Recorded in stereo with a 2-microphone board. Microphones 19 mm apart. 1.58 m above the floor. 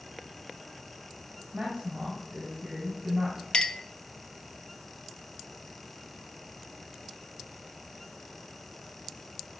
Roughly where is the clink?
Left.